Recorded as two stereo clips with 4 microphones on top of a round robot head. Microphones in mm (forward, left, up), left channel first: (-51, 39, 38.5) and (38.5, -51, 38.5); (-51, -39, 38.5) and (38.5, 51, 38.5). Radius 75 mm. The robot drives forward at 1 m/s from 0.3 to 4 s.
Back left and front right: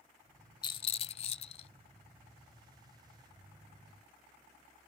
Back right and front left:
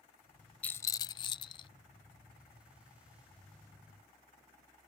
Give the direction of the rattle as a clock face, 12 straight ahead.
7 o'clock.